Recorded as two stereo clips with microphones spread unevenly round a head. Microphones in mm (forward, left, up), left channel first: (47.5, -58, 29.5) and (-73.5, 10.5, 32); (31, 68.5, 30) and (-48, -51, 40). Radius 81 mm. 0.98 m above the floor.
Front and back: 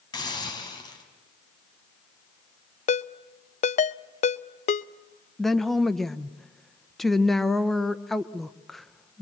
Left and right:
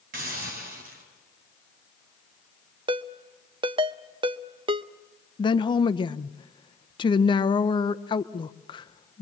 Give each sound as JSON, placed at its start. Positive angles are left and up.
{"t": 0.1, "sound": "a hiss", "azimuth_deg": -90, "distance_m": 4.0}
{"t": 2.9, "sound": "a ringtone", "azimuth_deg": -65, "distance_m": 0.5}
{"t": 5.4, "sound": "a woman speaking", "azimuth_deg": 55, "distance_m": 0.7}